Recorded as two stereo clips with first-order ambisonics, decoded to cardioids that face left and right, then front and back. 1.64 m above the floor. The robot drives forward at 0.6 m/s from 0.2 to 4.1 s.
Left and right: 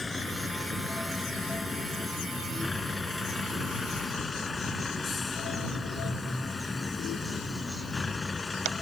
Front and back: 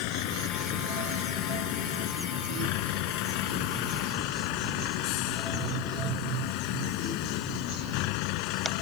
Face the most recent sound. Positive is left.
turn(degrees=10)